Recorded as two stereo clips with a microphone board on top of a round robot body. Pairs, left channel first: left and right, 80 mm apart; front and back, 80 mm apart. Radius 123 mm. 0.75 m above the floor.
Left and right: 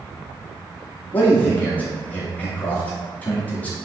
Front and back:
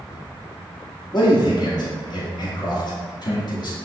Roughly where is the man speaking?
Ahead.